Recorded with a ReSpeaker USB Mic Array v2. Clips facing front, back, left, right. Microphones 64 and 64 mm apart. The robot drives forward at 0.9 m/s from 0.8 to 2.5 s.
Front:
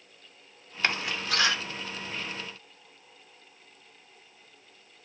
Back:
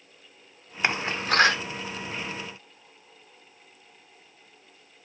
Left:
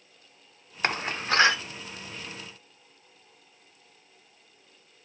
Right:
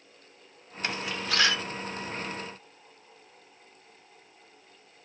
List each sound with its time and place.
0.8 s a door slam: 110° left, 0.7 m; by 1.6 s 150° left, 1.1 m